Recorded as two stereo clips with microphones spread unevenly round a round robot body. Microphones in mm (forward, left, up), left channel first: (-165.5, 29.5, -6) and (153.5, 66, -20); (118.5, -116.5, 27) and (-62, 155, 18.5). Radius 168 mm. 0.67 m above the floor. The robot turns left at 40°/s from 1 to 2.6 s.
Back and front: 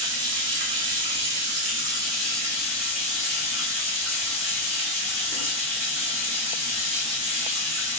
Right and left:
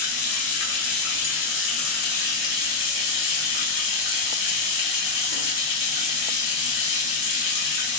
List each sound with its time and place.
0.0 s running water: 15° right, 0.8 m; by 8.0 s 80° right, 0.8 m